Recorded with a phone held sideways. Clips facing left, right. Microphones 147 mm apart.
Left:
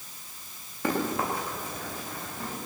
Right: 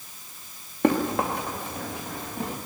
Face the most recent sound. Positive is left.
turn(degrees=-70)  # may be behind; listen again after turning